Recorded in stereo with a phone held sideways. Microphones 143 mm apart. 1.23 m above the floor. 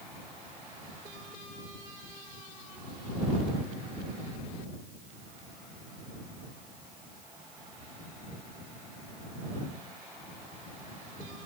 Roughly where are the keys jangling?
I don't hear keys jangling.